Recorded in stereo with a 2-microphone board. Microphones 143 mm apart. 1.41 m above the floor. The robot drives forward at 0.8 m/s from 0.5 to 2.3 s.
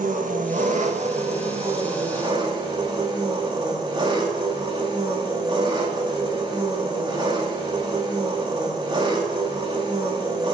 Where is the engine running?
65° right (ahead or behind), 1.5 m; by 10.6 s 35° right (ahead or behind), 2.5 m.